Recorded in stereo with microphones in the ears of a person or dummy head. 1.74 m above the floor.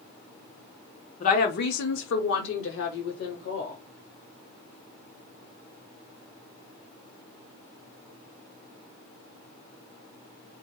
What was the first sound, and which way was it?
A woman speaking, 45° left (ahead or behind).